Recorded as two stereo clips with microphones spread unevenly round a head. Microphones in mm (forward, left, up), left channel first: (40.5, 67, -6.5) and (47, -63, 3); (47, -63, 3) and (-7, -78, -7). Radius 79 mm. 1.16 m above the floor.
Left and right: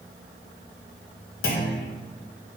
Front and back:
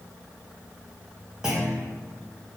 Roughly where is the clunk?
Left.